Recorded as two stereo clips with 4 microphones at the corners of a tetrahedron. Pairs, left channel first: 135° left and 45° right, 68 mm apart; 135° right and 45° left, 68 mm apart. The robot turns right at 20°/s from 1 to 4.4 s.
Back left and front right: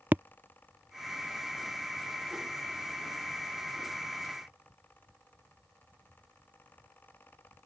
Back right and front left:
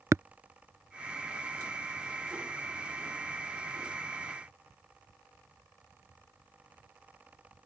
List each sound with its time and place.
0.1 s tapping: 10° left